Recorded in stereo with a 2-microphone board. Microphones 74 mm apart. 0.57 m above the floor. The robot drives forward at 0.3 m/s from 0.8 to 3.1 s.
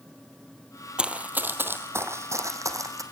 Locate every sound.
1.0 s running footsteps: 15° right (ahead or behind), 1.1 m; by 3.0 s 50° right (ahead or behind), 2 m